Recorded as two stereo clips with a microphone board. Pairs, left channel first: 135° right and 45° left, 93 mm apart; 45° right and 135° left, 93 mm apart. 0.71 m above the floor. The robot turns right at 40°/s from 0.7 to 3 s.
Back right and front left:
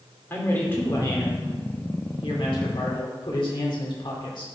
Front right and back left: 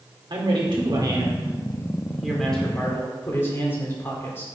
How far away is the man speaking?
About 2.0 m.